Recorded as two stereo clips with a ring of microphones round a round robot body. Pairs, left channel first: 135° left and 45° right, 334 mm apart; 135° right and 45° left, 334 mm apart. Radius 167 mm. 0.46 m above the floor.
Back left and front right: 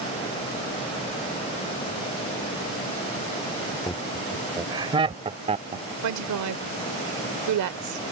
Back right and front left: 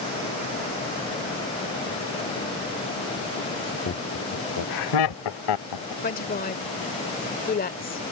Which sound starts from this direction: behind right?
Laughter, at 3.9 s.